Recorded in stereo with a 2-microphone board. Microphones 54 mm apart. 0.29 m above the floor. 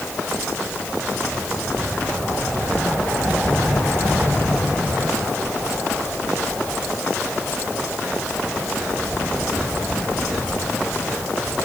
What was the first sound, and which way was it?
Only background noise.